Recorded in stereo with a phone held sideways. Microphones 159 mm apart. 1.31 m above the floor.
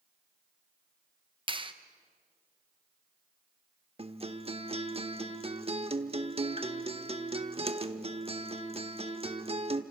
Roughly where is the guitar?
Right.